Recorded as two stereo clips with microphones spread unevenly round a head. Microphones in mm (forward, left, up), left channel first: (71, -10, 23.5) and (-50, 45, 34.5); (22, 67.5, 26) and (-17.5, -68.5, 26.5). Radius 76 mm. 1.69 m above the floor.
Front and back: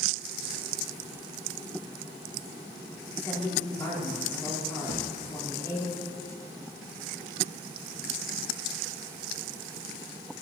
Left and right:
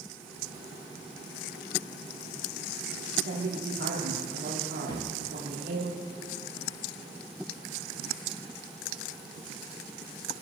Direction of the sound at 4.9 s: 20° left.